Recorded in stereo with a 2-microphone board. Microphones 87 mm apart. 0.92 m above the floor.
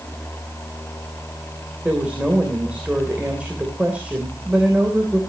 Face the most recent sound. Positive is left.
turn(degrees=-10)  # may be behind; listen again after turning